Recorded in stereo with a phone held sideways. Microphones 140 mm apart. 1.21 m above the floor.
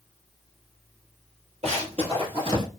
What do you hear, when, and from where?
1.6 s running footsteps: 50° right (ahead or behind), 1.7 m; by 2.6 s 35° right (ahead or behind), 1.4 m